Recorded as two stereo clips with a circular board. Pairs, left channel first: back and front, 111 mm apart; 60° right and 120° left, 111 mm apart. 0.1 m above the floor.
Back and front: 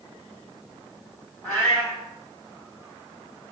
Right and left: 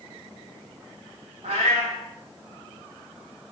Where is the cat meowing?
105° left, 1.0 m.